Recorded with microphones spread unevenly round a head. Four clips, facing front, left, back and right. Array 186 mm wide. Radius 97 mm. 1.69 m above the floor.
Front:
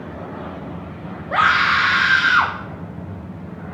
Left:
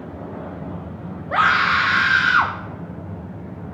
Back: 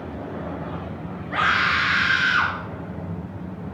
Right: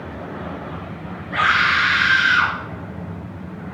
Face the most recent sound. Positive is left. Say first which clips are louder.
# left 1 dB, front 5 dB
turn(degrees=35)